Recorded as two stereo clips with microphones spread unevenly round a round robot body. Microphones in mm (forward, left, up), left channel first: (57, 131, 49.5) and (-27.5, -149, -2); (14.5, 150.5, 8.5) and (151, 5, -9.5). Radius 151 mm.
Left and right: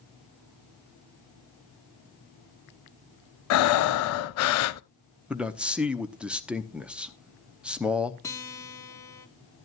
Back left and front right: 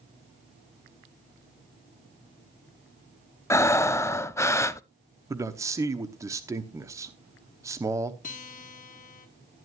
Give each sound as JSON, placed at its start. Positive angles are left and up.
{"t": 3.5, "sound": "breathing", "azimuth_deg": 60, "distance_m": 0.5}
{"t": 5.3, "sound": "a man speaking", "azimuth_deg": -60, "distance_m": 0.9}
{"t": 8.2, "sound": "a guitar", "azimuth_deg": 160, "distance_m": 1.2}